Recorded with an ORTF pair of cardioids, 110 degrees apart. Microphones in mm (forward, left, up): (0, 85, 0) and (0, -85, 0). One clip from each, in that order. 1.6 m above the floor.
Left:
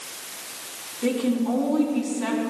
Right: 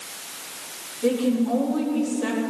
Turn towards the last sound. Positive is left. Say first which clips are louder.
# right 2 dB
turn(degrees=40)